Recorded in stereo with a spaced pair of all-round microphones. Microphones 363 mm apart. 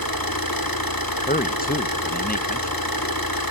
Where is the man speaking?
25° left (ahead or behind), 0.8 m.